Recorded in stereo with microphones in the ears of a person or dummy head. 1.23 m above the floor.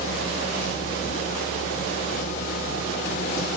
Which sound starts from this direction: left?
A machine running, at 0.0 s.